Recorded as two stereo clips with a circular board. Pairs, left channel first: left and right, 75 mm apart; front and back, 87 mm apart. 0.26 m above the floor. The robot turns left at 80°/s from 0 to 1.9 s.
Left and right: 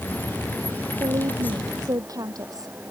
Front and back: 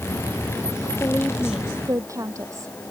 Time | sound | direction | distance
1.0 | a woman speaking | 55° right | ?